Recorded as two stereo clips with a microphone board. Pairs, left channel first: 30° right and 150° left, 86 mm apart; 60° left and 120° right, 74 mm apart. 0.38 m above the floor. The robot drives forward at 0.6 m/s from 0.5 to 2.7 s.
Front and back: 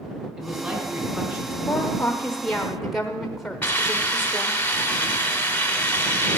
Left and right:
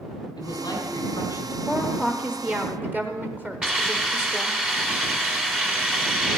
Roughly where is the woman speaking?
Ahead right.